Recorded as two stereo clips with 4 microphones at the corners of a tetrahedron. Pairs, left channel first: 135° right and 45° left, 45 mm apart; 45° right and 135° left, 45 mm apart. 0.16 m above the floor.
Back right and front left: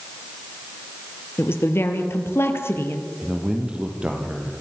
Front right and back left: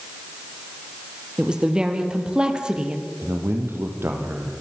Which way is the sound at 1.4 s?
155° right.